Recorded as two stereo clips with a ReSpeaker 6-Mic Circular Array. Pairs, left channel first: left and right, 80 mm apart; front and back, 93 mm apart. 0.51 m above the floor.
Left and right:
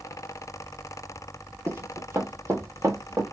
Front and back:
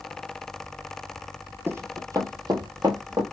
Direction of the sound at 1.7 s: 125° right.